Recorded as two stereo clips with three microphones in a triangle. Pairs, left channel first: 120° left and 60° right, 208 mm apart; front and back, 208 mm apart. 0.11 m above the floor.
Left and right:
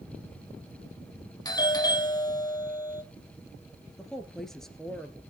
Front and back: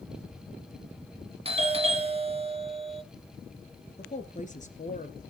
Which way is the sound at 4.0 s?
35° left.